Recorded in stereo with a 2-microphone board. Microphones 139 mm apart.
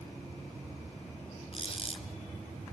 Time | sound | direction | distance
1.5 | a squeak | 45° left (ahead or behind) | 1.9 m